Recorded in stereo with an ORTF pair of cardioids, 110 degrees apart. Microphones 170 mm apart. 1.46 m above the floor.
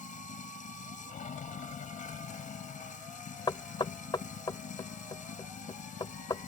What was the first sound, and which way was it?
Running water, 50° left.